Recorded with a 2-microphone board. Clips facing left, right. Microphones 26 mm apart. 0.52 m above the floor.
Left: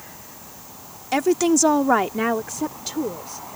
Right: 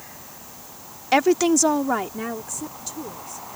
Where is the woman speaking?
20° right (ahead or behind); by 3.5 s 65° left (ahead or behind).